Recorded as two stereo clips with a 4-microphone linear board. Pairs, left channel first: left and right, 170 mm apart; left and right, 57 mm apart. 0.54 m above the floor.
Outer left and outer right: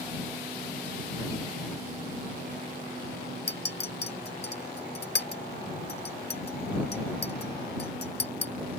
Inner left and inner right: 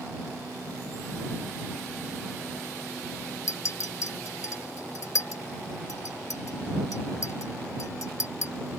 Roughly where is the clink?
Left.